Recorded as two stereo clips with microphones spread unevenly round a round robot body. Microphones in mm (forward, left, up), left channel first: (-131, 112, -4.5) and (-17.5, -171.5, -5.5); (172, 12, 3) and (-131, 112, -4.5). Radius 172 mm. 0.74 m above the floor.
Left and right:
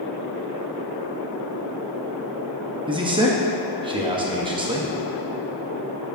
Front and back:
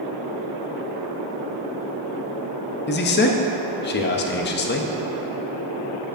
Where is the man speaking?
10° right, 0.6 m.